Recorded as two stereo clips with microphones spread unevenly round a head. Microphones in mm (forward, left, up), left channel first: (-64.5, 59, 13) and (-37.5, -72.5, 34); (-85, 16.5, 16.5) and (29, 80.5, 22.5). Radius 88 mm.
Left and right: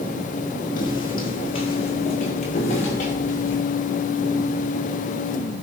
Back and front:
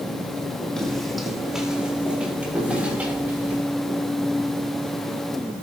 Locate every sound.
0.8 s footsteps: 125° left, 3.5 m; by 3.6 s 105° left, 7.5 m